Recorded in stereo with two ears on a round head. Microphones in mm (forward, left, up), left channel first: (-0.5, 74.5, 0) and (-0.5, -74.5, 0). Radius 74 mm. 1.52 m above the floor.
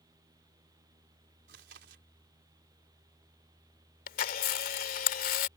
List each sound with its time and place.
1.5 s chewing: 75° right (ahead or behind)
4.1 s a camera shutter: 55° left (ahead or behind)